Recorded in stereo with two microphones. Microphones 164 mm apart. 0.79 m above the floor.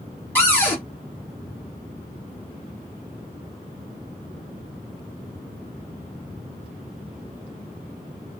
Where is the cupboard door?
10° left (ahead or behind), 1.4 m.